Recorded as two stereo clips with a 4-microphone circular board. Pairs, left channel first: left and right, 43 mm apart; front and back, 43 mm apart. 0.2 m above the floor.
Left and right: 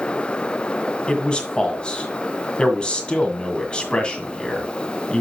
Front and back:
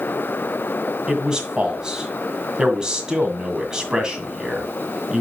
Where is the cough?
No cough in this recording.